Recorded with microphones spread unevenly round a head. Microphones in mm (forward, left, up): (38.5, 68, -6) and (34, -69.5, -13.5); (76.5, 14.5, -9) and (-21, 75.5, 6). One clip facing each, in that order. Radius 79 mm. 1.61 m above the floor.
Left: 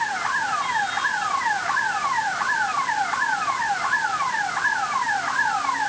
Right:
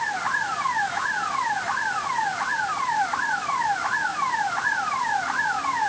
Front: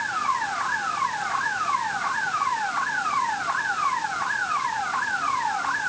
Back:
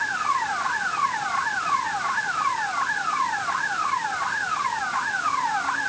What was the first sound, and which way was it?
Only background noise.